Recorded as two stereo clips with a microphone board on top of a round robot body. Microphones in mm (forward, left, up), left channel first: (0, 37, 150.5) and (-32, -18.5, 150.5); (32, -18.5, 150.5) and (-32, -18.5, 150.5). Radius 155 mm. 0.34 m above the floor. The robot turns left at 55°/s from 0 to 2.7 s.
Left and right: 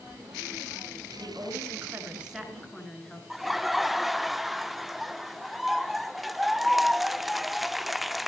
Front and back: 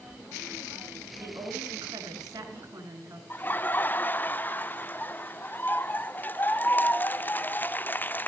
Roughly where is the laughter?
Ahead right.